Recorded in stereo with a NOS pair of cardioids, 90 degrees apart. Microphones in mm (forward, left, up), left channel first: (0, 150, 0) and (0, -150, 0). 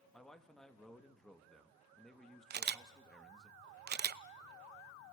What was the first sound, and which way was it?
A man speaking, straight ahead.